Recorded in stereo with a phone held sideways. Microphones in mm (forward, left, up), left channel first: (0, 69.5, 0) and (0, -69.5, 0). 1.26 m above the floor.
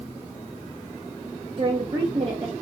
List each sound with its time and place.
1.6 s a woman speaking: 40° right (ahead or behind), 0.5 m